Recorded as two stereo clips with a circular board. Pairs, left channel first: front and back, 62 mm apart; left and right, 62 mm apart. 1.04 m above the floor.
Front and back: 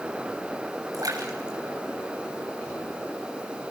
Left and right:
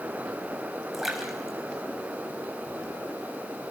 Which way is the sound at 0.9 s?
175° right.